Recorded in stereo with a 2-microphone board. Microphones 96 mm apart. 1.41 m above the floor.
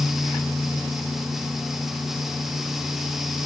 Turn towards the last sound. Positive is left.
No sound to turn to.